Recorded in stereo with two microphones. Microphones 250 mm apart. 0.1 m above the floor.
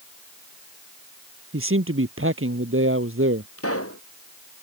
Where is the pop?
65° left (ahead or behind).